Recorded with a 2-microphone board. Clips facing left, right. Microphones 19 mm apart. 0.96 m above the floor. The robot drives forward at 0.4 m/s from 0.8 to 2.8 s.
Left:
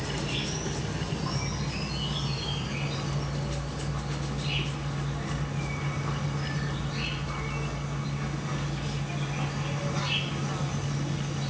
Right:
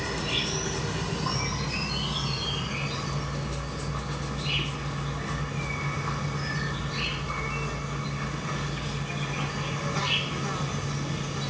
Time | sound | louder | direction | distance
0.0 | an insect | right 3 dB | 25° right (ahead or behind) | 0.9 m